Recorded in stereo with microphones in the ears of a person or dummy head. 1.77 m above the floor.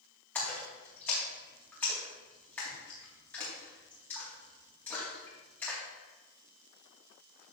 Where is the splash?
10° left (ahead or behind), 3.5 m.